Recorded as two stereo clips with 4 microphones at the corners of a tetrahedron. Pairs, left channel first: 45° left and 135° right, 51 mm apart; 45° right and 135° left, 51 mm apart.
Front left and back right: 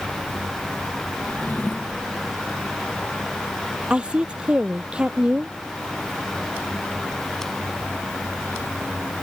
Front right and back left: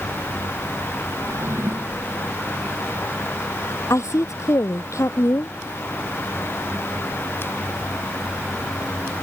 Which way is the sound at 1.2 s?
105° left.